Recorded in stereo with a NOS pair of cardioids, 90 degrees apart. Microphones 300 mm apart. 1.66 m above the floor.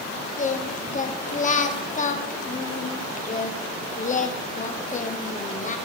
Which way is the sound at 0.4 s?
25° left.